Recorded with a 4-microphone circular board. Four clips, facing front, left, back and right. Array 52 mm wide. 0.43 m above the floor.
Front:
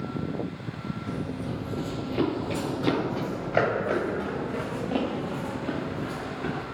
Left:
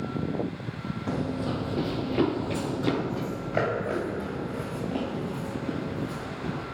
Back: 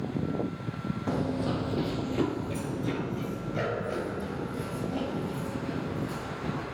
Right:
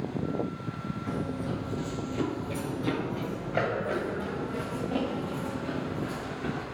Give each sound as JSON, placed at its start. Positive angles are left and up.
{"t": 1.1, "sound": "running footsteps", "azimuth_deg": 145, "distance_m": 0.7}